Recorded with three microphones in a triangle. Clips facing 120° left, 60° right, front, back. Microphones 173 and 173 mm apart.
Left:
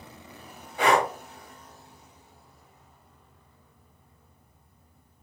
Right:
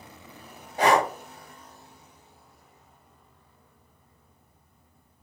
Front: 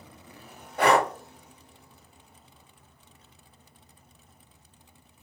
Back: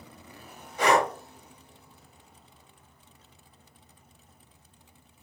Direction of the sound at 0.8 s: 15° right.